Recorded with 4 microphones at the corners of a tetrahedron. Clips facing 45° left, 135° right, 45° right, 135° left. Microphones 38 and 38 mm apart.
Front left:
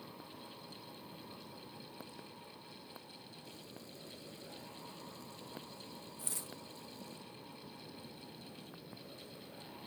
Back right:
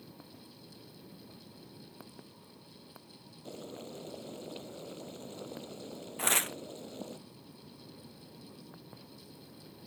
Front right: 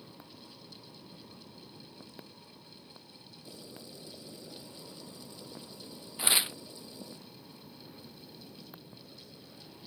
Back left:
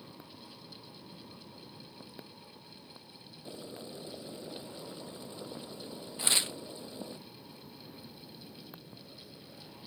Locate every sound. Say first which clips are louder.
3.5 s boiling: back right 13 dB, back left 5 dB; 170° right
6.2 s tearing paper: back right 20 dB, front right 2 dB; 120° right